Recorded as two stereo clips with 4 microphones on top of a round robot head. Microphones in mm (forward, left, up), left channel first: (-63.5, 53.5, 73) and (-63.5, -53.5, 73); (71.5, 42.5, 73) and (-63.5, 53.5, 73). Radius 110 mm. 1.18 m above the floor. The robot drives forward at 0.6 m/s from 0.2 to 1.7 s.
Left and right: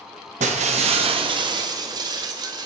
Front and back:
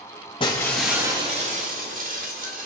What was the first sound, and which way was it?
Breaking glass, 70° right.